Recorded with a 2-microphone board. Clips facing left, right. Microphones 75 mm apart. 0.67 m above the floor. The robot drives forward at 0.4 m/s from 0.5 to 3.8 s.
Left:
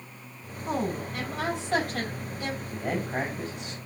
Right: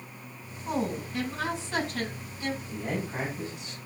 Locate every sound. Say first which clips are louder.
0.7 s a woman speaking: left 1 dB; 70° left (ahead or behind), 4.5 m; by 2.6 s 65° left (ahead or behind), 4.5 m
2.7 s a man speaking: left 3 dB; 65° left (ahead or behind), 4.5 m; by 3.8 s 60° left (ahead or behind), 4.5 m